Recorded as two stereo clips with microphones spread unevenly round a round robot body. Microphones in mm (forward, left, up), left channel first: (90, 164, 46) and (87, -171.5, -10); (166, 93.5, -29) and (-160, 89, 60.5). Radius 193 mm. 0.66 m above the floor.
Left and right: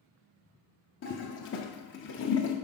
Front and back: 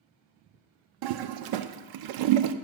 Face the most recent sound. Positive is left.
turn(degrees=155)